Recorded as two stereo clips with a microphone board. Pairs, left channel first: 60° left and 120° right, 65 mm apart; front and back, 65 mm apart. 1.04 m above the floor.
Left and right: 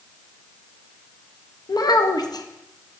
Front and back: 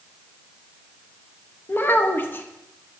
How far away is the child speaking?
About 0.6 m.